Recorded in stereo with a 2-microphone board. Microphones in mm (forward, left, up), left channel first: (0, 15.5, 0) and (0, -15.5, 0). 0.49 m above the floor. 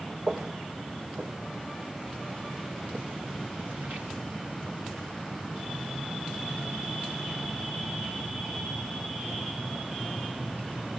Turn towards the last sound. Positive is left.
turn(degrees=-80)